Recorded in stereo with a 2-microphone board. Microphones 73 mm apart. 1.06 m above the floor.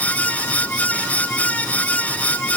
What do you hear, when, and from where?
Only background noise.